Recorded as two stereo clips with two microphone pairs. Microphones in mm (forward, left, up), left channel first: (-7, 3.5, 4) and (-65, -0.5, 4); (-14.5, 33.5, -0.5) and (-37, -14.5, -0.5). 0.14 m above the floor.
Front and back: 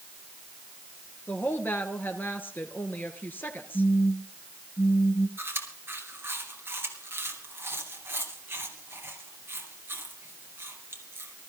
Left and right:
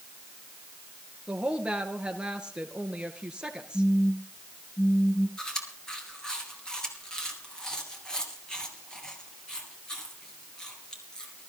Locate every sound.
1.3 s a woman speaking: 45° right, 2 m
3.7 s a phone buzzing: 35° left, 3.5 m
5.4 s chewing: 140° left, 3 m